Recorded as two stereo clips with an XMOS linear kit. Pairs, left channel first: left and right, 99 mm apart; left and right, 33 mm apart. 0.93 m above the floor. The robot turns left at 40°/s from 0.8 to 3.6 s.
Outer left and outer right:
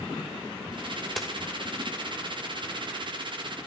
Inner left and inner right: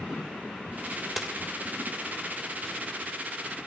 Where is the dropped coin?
Centre (ahead or behind), 1.9 m; by 1.3 s 5° right (ahead or behind), 1.9 m.